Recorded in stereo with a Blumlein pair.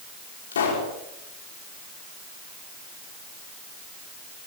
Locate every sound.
0.5 s a pop: 65° left, 5.5 m